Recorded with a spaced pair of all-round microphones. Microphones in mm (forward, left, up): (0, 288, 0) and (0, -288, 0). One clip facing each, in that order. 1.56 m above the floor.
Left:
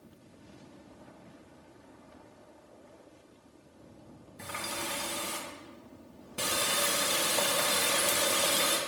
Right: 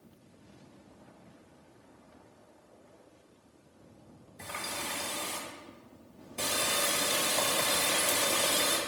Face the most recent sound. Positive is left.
turn(degrees=35)  # may be behind; listen again after turning